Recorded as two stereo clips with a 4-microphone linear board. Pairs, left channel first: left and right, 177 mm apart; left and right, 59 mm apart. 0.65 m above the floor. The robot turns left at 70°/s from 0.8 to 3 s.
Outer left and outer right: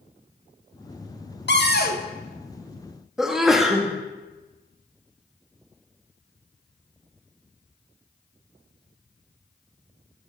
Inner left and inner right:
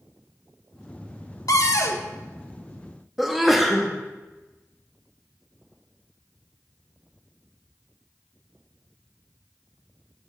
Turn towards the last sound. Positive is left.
turn(degrees=0)  # may be behind; listen again after turning